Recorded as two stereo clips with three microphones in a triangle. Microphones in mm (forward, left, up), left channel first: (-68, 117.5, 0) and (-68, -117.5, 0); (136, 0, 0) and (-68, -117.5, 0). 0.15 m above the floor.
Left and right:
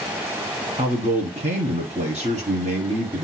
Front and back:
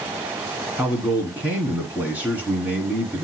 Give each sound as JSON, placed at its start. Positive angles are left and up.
{"t": 0.8, "sound": "a man speaking", "azimuth_deg": -75, "distance_m": 1.6}